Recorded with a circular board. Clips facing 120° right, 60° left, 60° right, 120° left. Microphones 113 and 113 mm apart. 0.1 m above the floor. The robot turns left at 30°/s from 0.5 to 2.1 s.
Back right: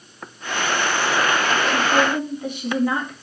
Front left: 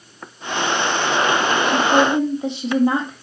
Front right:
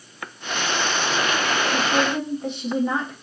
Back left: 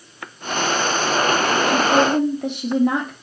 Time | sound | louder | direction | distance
1.7 | a woman speaking | front left 5 dB, back left 7 dB | 140° left | 3 m